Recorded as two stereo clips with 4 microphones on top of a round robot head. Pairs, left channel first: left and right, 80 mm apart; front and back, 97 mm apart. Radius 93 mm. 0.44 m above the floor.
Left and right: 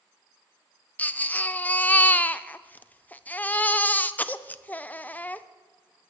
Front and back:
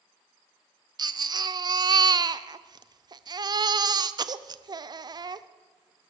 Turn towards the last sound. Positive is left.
turn(degrees=155)